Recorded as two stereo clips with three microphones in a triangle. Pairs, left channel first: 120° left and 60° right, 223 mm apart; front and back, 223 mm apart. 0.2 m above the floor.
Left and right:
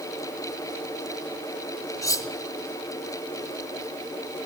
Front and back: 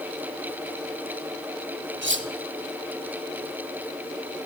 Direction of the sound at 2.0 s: 165° right.